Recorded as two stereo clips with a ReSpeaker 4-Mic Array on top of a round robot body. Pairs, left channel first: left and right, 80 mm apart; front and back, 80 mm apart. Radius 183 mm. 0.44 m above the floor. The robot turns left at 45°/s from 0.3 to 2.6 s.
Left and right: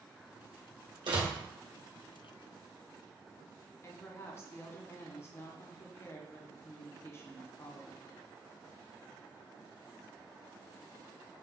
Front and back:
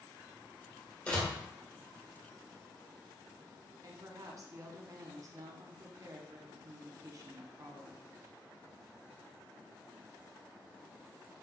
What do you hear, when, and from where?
1.1 s a door slam: 75° right, 1.6 m; by 1.3 s 85° right, 1.6 m
3.8 s a woman speaking: 145° left, 1.3 m